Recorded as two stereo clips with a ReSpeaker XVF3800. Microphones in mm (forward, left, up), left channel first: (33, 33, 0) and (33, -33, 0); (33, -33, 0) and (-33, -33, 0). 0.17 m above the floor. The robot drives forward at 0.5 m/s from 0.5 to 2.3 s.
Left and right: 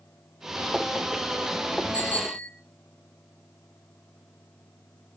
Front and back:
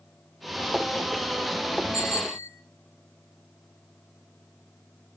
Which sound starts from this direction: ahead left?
A bicycle bell, at 1.9 s.